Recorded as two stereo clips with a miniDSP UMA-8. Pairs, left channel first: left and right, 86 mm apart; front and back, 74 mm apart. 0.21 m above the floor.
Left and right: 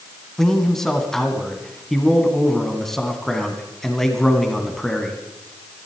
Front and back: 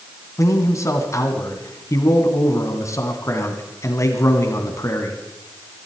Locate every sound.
0.4 s a man speaking: 5° left, 2 m